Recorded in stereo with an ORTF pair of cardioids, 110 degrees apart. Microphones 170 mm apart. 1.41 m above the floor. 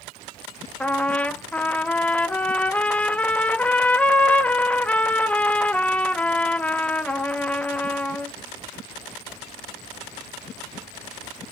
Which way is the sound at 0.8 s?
10° left.